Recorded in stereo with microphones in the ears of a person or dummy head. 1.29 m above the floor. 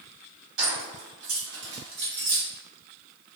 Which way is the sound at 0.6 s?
50° right (ahead or behind).